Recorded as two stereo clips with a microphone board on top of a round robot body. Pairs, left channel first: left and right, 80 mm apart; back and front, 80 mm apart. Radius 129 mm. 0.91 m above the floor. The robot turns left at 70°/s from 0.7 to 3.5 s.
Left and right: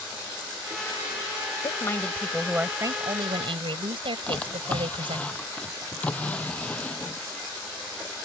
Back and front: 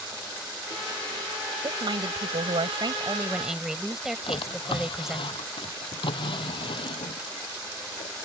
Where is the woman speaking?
45° left; by 5.3 s 85° right.